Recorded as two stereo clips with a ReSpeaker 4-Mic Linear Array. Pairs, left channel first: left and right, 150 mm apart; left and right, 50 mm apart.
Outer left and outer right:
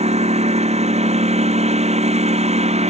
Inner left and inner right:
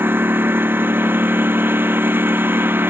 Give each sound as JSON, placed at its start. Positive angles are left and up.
{"t": 0.0, "sound": "a lawn mower", "side_deg": -45}